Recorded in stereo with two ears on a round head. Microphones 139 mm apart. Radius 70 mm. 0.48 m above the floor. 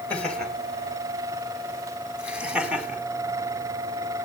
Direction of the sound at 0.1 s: 10° left (ahead or behind).